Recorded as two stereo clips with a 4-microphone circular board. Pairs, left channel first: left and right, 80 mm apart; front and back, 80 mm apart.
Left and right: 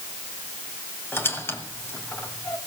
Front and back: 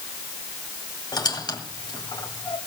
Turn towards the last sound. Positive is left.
turn(degrees=30)